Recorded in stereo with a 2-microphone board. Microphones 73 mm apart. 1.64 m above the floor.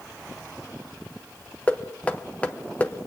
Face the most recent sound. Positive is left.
turn(degrees=20)  # may be behind; listen again after turning